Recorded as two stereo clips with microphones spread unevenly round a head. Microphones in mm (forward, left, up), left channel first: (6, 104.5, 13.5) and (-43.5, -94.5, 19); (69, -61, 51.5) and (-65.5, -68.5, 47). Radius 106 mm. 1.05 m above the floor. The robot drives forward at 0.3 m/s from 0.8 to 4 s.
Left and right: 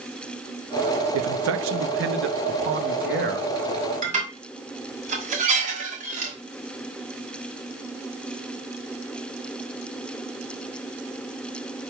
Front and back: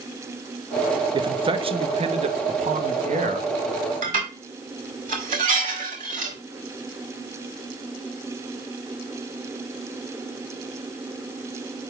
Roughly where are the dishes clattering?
Behind.